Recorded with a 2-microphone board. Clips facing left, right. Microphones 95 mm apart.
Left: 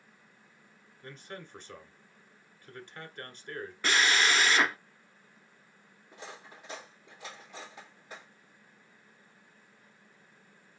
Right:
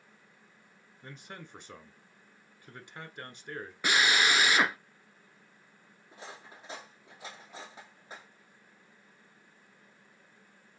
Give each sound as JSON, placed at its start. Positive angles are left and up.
{"t": 1.0, "sound": "a man speaking", "side_deg": -15, "distance_m": 1.2}
{"t": 3.8, "sound": "a drill", "side_deg": -15, "distance_m": 0.6}
{"t": 6.1, "sound": "cutlery clinking", "side_deg": -25, "distance_m": 2.5}